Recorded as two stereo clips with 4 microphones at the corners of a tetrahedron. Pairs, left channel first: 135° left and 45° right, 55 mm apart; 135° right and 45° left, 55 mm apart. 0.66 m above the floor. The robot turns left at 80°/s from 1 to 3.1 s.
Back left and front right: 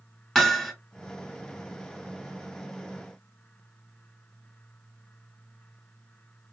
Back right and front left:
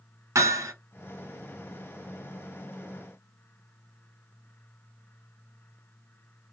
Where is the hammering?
50° left, 1.2 m.